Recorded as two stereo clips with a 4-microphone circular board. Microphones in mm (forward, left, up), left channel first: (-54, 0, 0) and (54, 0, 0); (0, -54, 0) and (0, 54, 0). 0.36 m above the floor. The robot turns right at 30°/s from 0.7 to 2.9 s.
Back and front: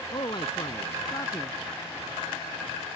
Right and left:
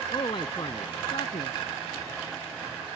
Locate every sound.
0.1 s a man speaking: 135° right; by 1.5 s 110° right